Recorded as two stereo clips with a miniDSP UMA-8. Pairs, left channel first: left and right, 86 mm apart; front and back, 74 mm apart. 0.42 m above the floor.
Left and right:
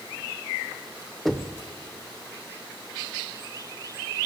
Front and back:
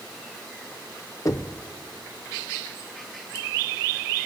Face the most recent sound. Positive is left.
turn(degrees=0)